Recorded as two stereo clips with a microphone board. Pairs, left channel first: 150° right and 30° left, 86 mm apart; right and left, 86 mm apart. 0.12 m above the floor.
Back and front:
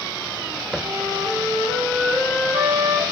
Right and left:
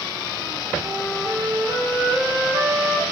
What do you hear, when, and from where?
0.8 s a flute: 55° left, 4 m